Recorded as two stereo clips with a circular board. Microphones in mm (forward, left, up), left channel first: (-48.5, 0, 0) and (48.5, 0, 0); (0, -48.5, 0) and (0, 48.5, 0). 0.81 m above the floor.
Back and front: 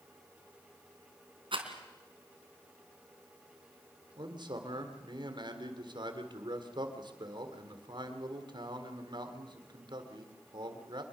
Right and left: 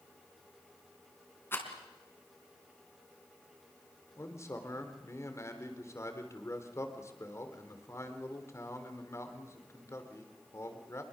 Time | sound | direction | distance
1.5 | a rattle | 25° right | 3.5 m
4.2 | a man speaking | 30° right | 3.5 m